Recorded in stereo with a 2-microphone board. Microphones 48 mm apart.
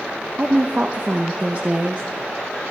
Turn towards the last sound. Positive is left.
turn(degrees=-35)  # may be behind; listen again after turning